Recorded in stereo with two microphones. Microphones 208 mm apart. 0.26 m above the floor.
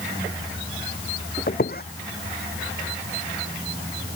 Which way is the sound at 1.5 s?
45° left (ahead or behind).